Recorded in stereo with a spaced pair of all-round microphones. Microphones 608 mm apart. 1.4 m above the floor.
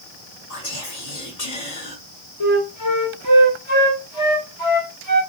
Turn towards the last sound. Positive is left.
turn(degrees=50)  # may be behind; listen again after turning